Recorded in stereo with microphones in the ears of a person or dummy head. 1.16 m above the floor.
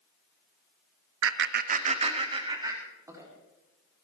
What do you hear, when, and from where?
1.2 s laughter: 75° right (ahead or behind), 0.9 m; by 3.3 s 20° right (ahead or behind), 3 m